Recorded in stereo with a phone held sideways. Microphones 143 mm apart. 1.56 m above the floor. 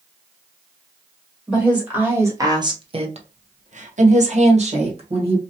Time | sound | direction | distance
1.5 | a woman speaking | 5° right (ahead or behind) | 1.1 m